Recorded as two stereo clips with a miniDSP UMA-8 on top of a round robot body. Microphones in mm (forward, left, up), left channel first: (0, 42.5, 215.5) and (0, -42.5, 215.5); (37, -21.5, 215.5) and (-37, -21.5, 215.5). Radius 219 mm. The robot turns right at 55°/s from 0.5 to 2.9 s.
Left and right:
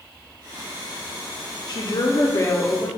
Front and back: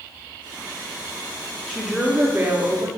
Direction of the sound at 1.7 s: 85° left.